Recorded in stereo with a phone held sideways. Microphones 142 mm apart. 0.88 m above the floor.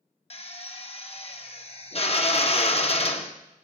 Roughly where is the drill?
Left.